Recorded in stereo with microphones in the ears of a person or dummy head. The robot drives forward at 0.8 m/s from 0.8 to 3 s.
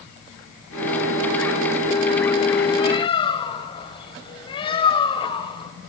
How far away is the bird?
About 1.8 m.